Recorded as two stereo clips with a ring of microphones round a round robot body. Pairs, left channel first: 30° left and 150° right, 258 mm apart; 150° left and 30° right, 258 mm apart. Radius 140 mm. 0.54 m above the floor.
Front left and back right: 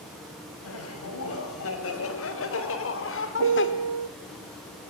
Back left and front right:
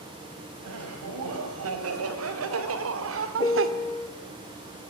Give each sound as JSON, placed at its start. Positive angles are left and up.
{"t": 0.6, "sound": "laughter", "azimuth_deg": 0, "distance_m": 5.0}
{"t": 3.4, "sound": "a piano", "azimuth_deg": -135, "distance_m": 0.7}